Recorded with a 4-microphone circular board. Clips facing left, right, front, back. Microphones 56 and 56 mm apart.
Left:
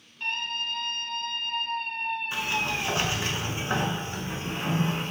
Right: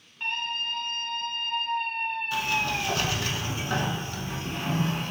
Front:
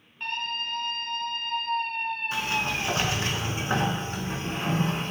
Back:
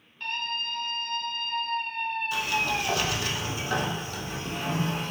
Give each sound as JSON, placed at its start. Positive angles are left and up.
{"t": 0.2, "sound": "a scream", "azimuth_deg": -50, "distance_m": 1.3}
{"t": 2.3, "sound": "a sliding door", "azimuth_deg": 40, "distance_m": 0.5}